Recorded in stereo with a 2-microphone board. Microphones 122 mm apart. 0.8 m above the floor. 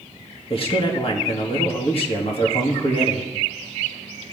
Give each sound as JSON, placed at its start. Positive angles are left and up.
{"t": 0.5, "sound": "a man speaking", "side_deg": 45, "distance_m": 1.3}